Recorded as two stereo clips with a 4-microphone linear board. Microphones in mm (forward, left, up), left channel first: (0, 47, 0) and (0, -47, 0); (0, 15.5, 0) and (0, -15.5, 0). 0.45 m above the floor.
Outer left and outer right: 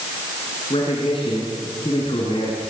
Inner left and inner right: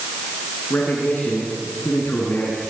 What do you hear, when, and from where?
0.7 s a man speaking: 70° left (ahead or behind), 6 m